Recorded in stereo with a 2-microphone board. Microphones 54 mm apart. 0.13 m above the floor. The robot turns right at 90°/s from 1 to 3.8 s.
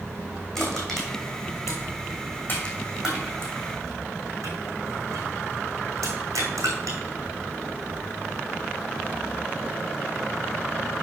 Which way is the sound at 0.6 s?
10° left (ahead or behind).